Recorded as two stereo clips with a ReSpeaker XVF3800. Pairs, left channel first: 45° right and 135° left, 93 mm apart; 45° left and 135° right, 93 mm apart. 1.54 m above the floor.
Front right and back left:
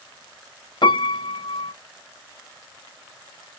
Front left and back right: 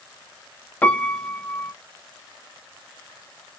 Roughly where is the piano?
Ahead right.